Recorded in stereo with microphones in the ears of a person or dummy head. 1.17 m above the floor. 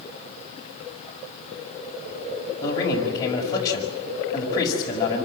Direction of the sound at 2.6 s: 20° left (ahead or behind).